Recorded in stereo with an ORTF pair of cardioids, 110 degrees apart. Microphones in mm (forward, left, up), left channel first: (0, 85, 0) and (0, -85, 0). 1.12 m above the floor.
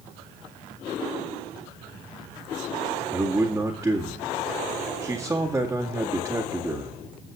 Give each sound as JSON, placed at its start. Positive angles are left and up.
{"t": 3.1, "sound": "a man speaking", "azimuth_deg": -15, "distance_m": 1.9}